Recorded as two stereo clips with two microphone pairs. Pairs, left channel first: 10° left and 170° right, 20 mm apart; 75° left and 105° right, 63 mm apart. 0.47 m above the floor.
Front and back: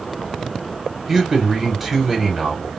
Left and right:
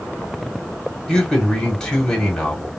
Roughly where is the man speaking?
Behind left.